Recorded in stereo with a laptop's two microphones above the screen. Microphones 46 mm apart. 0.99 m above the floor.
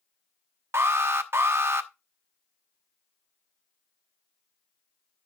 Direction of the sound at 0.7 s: 60° right (ahead or behind).